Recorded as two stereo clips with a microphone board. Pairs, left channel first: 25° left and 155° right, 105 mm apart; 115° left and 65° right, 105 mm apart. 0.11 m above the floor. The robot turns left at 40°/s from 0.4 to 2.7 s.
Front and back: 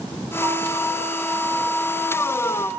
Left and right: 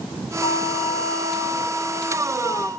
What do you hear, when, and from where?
0.4 s a flute: 150° left, 7.5 m; by 2.7 s 60° left, 7.5 m